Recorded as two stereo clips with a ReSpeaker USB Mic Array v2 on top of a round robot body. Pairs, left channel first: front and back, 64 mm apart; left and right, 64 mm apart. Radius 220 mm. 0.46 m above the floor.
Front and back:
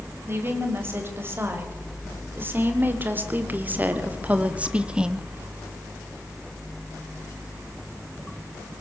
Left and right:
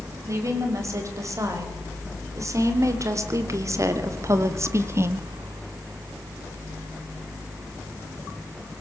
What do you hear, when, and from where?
0.3 s a woman speaking: 125° right, 4.5 m; by 5.3 s 105° right, 1.3 m